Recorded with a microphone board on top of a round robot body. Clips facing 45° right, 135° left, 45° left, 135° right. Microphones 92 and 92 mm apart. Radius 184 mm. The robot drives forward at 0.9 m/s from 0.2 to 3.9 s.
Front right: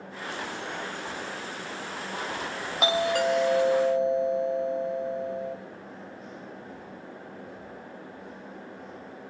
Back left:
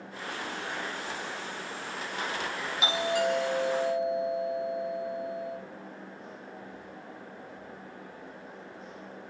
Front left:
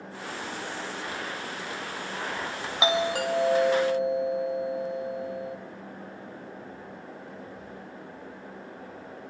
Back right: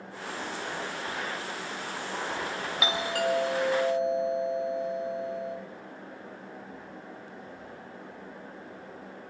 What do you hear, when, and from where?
2.8 s a doorbell: 20° right, 4 m; by 5.6 s 25° right, 3.5 m